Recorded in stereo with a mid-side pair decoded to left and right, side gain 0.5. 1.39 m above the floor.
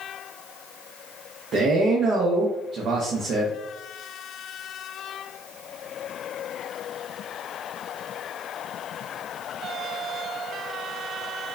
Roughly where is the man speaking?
Ahead right.